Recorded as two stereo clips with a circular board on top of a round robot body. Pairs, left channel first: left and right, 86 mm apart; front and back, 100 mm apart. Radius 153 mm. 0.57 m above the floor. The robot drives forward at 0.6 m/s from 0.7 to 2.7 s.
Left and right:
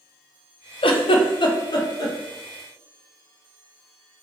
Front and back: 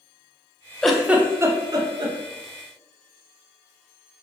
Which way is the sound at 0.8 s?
85° left.